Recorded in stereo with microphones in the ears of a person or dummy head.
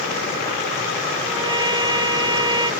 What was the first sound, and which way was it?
A trumpet, 20° right (ahead or behind).